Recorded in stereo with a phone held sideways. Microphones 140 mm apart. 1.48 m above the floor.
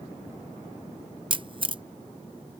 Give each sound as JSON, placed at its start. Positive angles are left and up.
{"t": 1.3, "sound": "a camera shutter", "side_deg": -35}